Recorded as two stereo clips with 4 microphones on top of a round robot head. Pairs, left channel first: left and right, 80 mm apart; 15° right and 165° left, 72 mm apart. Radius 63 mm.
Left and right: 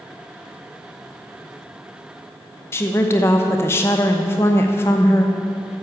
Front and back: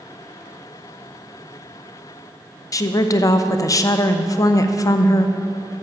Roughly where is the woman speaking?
Ahead left.